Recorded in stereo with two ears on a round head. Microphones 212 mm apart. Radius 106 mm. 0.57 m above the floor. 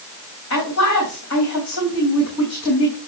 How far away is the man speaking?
About 3 m.